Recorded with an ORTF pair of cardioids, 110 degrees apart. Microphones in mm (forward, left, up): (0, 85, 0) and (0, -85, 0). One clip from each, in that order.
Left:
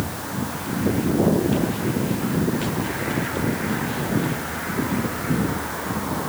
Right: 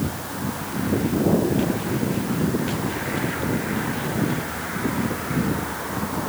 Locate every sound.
Only background noise.